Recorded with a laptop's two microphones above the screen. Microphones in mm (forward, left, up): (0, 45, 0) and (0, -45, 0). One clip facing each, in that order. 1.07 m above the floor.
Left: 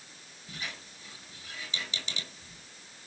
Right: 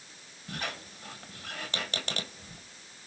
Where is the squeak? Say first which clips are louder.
Right 5 dB; 65° right (ahead or behind), 1.9 m.